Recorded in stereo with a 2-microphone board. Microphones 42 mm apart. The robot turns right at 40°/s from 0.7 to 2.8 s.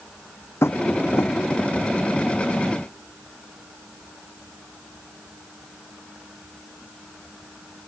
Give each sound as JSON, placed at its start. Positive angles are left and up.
{"t": 0.6, "sound": "tapping", "side_deg": 85}